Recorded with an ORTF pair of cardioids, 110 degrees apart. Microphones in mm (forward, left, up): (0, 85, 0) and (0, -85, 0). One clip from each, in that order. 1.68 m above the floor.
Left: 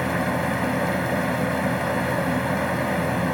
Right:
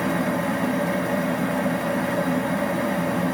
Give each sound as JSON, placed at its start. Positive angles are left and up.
{"t": 0.0, "sound": "a fan", "azimuth_deg": 25, "distance_m": 1.3}